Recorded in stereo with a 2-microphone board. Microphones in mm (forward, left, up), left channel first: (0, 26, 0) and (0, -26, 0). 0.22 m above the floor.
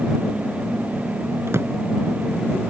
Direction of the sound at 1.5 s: 70° right (ahead or behind).